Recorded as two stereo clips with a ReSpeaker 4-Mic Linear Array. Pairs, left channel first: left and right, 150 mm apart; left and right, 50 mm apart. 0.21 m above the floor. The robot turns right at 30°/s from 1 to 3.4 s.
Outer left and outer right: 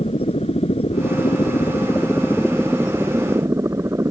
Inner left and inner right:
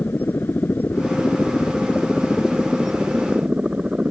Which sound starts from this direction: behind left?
A helicopter, at 0.0 s.